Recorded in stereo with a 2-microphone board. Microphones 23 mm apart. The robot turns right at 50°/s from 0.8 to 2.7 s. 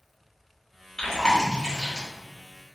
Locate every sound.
1.0 s chewing: 25° left (ahead or behind), 1.2 m; by 2.1 s 40° left (ahead or behind), 1.2 m